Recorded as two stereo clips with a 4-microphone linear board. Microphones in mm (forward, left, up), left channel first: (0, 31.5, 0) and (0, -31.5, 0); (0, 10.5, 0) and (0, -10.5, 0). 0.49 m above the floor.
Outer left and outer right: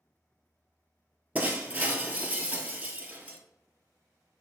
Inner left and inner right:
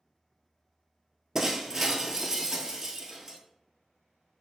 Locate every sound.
1.4 s breaking glass: 25° right (ahead or behind), 0.9 m